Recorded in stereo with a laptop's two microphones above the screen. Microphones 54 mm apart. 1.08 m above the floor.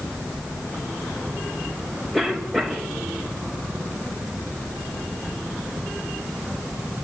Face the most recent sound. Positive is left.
turn(degrees=0)  # may be behind; listen again after turning